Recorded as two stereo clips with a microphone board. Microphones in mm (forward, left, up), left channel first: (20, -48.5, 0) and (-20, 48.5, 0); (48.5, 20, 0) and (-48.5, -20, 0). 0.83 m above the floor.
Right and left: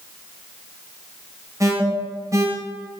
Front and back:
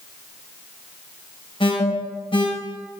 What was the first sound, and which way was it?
An alarm, 55° left.